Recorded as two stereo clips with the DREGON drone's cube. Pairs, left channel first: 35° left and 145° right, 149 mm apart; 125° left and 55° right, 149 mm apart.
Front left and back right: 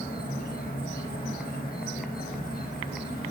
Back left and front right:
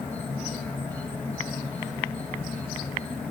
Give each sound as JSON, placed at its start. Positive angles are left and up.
{"t": 0.0, "sound": "an insect", "azimuth_deg": 45, "distance_m": 6.5}